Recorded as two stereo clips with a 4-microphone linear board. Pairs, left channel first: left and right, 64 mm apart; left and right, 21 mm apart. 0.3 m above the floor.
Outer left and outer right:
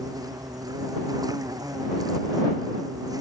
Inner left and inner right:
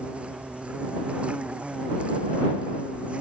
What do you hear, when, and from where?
0.0 s an insect: 75° right (ahead or behind)